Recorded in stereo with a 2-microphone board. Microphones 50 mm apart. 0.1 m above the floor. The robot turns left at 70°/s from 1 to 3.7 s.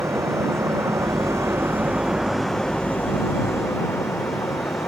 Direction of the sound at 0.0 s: 80° right.